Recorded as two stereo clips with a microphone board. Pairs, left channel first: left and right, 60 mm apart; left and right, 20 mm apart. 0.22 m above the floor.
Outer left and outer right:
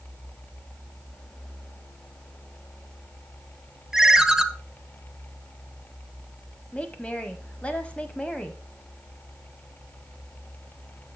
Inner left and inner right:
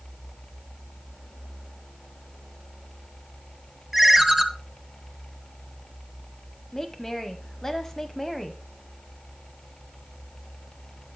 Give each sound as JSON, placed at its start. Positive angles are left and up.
{"t": 3.9, "sound": "a ringtone", "side_deg": -10, "distance_m": 0.7}
{"t": 6.7, "sound": "a woman speaking", "side_deg": 20, "distance_m": 1.0}